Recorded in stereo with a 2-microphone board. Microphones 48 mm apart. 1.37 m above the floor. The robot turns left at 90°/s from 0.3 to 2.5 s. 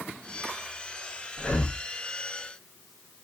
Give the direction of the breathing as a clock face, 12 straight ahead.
10 o'clock.